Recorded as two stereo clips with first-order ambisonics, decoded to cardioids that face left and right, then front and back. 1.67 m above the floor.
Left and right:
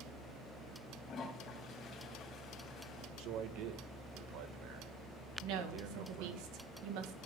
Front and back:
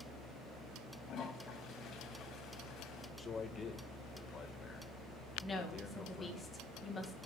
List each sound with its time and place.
1.1 s a toilet flushing: 40° left, 2.5 m
3.2 s a man speaking: 70° right, 1.5 m
5.4 s a woman speaking: 75° right, 2.0 m